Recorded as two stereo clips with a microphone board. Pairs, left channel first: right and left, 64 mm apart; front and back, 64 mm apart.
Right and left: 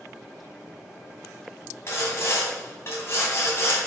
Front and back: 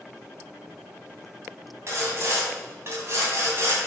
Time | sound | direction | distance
1.9 | sawing | 135° right | 2.5 m